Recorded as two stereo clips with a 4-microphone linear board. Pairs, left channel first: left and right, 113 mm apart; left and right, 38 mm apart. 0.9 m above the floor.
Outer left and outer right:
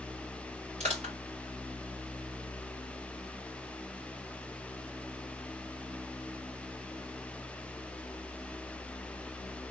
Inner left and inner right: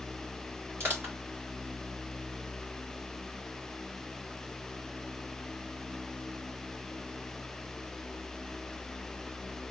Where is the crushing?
70° right (ahead or behind), 2.5 m.